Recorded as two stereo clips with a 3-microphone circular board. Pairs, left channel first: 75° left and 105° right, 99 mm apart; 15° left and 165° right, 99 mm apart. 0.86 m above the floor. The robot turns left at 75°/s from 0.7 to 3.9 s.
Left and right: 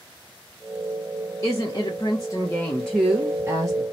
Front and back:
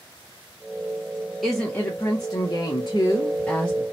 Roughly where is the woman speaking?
Left.